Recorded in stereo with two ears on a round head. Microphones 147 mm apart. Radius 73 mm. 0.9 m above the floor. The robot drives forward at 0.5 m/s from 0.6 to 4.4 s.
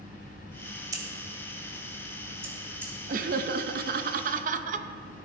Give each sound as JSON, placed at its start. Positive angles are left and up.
{"t": 0.9, "sound": "scissors", "side_deg": -20, "distance_m": 1.8}
{"t": 3.1, "sound": "laughter", "side_deg": -50, "distance_m": 0.7}